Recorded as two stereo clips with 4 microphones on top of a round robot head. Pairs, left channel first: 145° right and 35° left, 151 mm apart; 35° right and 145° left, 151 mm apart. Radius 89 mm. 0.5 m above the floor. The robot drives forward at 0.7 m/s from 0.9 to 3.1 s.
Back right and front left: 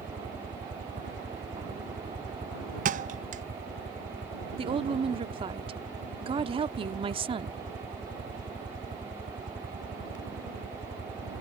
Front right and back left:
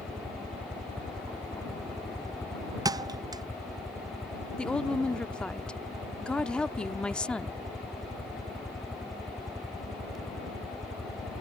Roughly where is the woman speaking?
Ahead left.